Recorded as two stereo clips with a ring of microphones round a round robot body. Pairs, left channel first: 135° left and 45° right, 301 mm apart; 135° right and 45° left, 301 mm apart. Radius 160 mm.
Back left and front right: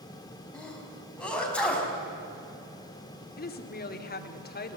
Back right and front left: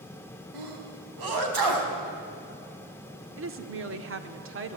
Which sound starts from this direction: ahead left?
A sneeze, at 0.5 s.